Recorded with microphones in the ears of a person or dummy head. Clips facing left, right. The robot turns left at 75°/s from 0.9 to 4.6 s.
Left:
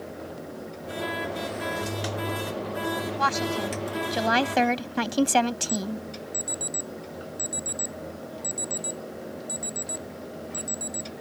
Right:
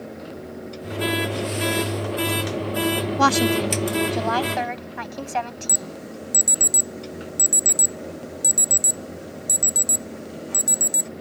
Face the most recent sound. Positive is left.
turn(degrees=-60)  # may be behind; listen again after turning